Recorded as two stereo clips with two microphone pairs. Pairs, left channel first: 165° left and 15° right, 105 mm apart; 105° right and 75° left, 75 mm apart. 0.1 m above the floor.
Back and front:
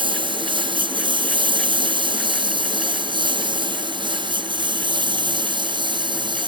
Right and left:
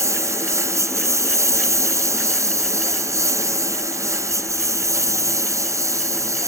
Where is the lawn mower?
25° left.